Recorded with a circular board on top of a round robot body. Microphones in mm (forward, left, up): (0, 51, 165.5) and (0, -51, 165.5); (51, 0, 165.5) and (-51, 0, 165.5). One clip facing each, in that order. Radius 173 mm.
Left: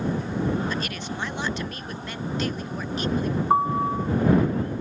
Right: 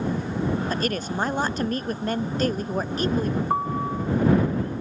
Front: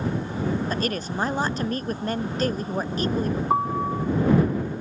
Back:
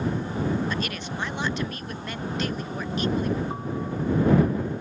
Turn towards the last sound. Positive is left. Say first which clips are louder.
# left 4 dB, front 7 dB
turn(degrees=20)